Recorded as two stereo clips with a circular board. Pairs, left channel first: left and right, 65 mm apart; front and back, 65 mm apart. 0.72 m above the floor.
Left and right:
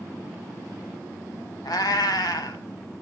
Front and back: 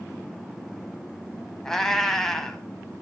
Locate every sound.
1.6 s a cat meowing: 85° left, 1.6 m